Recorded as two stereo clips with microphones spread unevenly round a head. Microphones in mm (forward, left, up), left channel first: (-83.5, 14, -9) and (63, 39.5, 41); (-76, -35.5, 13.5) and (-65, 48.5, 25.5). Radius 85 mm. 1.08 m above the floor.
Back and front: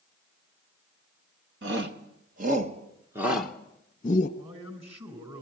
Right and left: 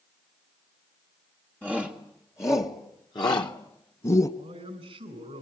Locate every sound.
1.6 s a shout: 20° right, 2 m; by 4.3 s 130° right, 1.8 m
4.4 s a man speaking: 65° left, 4.5 m